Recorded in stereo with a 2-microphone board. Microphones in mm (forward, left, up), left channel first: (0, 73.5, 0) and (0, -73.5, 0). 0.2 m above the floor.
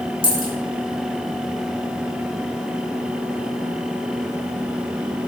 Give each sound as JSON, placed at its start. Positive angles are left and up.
{"t": 0.2, "sound": "a dropped coin", "side_deg": 85, "distance_m": 2.0}